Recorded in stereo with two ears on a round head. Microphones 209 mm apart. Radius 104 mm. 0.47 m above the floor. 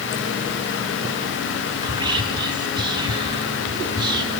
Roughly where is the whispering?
Centre.